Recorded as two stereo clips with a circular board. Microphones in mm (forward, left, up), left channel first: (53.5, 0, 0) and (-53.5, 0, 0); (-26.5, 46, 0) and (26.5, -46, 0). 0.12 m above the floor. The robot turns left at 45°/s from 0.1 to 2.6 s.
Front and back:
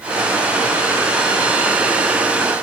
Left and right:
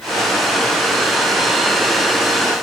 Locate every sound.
Only background noise.